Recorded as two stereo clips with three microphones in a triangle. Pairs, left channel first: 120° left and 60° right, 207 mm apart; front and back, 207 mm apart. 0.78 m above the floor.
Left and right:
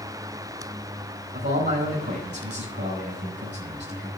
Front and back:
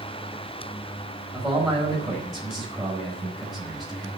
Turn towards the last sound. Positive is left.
turn(degrees=-90)